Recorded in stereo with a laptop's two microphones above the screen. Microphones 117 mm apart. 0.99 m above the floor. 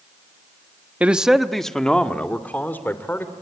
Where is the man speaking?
10° right (ahead or behind), 1.2 m; by 3.3 s 20° left (ahead or behind), 3 m.